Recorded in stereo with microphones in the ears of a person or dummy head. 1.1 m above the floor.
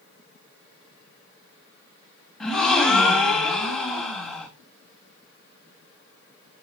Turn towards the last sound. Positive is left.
turn(degrees=0)  # may be behind; listen again after turning